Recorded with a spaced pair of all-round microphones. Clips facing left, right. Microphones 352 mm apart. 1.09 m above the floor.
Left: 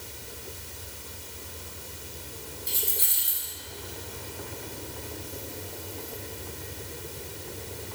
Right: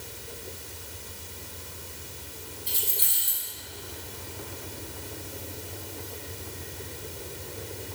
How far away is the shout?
I don't hear a shout.